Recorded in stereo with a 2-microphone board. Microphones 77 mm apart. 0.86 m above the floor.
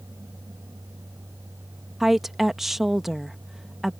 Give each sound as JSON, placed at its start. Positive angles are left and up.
{"t": 2.0, "sound": "a woman speaking", "side_deg": -5}